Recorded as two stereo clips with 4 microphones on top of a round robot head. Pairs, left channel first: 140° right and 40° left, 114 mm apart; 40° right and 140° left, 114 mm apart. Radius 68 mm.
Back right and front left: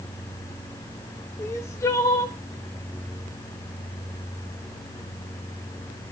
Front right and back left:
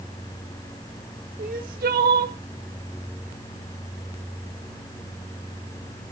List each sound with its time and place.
1.4 s crying: 150° left, 1.2 m